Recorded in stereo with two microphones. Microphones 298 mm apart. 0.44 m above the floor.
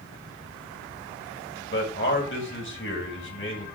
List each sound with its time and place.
1.7 s a man speaking: 40° left (ahead or behind), 3 m